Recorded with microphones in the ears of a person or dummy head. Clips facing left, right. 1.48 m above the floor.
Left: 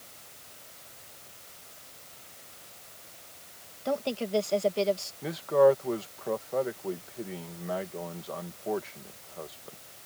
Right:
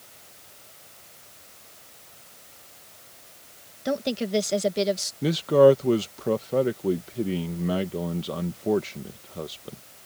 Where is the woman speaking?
20° right (ahead or behind).